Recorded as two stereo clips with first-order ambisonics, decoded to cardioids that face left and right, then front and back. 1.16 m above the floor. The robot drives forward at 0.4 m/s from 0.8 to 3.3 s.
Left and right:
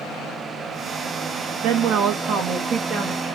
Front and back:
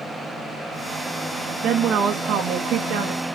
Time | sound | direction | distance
1.6 | a woman speaking | 125° right | 1.0 m